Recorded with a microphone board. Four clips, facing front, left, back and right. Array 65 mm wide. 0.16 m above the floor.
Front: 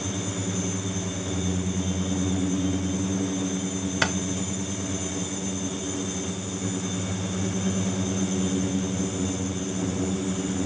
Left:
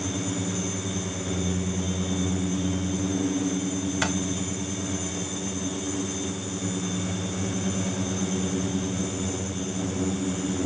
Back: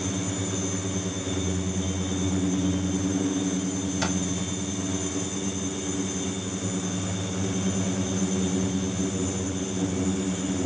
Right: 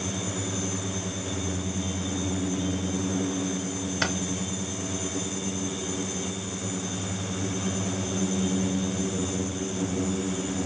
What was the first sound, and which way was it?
Keys jangling, 10° right.